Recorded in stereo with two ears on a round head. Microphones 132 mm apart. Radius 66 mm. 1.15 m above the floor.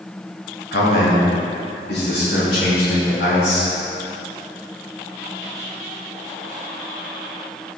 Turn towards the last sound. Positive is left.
turn(degrees=80)